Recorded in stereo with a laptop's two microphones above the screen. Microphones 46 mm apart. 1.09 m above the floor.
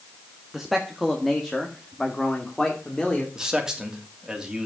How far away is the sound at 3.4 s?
About 3 m.